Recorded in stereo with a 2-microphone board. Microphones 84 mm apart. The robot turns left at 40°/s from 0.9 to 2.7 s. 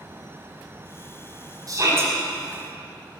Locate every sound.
1.7 s a shout: 45° right (ahead or behind), 4.5 m; by 2.1 s 30° right (ahead or behind), 4.5 m